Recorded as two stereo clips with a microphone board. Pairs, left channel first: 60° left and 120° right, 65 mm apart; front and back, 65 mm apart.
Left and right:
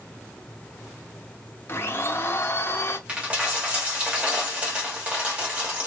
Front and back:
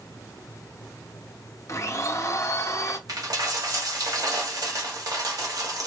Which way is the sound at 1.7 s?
20° left.